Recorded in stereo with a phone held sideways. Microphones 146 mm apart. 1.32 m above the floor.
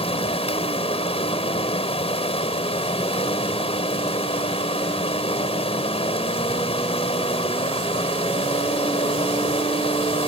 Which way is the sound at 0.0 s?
45° left (ahead or behind).